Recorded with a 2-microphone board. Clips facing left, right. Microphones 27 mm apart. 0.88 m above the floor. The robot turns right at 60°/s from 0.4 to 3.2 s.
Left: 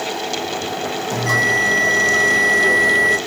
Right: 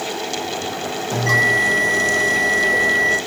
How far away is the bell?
About 1.3 m.